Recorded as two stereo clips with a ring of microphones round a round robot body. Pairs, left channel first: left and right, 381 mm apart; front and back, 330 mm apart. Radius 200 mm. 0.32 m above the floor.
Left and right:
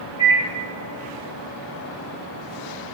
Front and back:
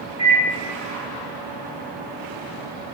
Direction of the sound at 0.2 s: 105° left.